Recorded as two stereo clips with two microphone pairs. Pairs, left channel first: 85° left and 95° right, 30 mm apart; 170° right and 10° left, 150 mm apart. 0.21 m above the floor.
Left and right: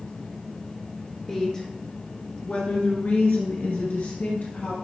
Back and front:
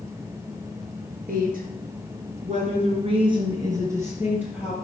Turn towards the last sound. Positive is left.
turn(degrees=90)